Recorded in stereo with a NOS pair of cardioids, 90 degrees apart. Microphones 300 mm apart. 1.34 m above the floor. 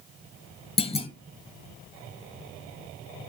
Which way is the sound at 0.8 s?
20° left.